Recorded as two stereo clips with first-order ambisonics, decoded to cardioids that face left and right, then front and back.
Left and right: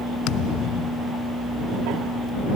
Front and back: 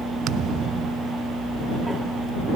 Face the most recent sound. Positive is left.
turn(degrees=130)